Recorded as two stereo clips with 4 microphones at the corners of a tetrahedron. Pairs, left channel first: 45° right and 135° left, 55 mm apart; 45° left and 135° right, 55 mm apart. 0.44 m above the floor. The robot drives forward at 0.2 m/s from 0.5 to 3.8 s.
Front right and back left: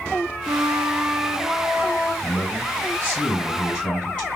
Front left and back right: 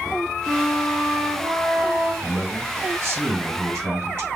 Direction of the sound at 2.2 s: 100° right.